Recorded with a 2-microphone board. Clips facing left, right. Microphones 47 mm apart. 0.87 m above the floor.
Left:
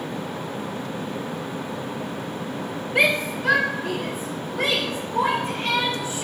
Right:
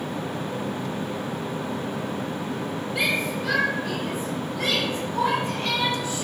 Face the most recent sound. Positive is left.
turn(degrees=35)  # may be behind; listen again after turning